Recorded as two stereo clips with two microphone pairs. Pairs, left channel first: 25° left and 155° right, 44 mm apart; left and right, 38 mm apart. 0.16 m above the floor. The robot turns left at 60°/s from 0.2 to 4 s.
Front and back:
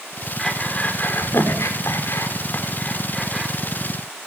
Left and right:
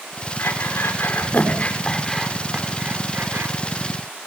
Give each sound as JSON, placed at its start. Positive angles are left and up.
{"t": 0.4, "sound": "breathing", "azimuth_deg": 110, "distance_m": 5.5}